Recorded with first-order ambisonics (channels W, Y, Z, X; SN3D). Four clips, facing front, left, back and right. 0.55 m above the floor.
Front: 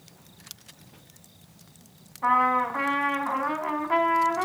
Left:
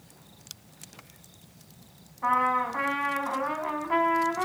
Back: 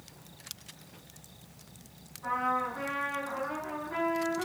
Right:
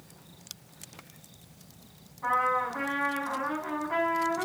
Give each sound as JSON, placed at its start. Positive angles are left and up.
{"t": 2.2, "sound": "a trumpet", "azimuth_deg": 25, "distance_m": 5.0}